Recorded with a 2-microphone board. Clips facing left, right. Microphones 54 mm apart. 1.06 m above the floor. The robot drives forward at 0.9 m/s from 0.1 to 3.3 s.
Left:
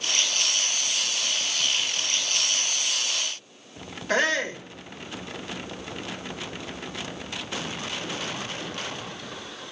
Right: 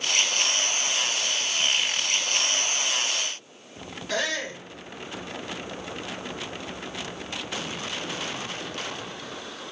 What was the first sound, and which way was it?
A shout, 45° left (ahead or behind).